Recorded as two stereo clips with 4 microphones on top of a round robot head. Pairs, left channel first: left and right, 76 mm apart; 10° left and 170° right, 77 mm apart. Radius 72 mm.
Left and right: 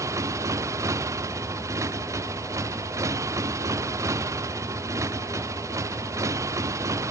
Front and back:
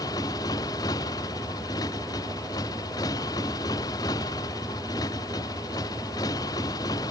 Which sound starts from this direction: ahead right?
A motorcycle, at 0.0 s.